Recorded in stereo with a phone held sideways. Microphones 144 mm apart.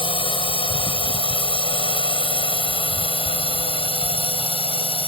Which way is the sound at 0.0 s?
35° left (ahead or behind).